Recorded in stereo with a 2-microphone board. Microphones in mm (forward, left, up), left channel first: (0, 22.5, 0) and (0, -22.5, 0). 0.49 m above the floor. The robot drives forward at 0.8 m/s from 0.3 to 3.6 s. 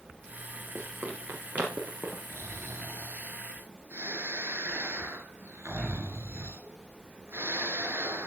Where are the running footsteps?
65° right (ahead or behind), 5.5 m; by 2.2 s 35° right (ahead or behind), 7 m.